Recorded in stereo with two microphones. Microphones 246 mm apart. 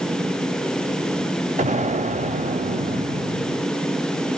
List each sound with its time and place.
1.6 s an explosion: 30° right (ahead or behind), 0.8 m